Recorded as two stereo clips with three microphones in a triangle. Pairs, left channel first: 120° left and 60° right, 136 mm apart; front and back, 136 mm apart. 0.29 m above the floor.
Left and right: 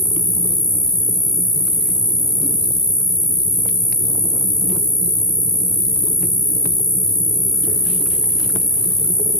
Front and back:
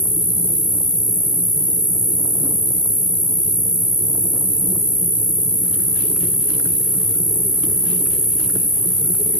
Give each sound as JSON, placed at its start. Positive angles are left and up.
{"t": 0.0, "sound": "an insect", "azimuth_deg": 65, "distance_m": 0.9}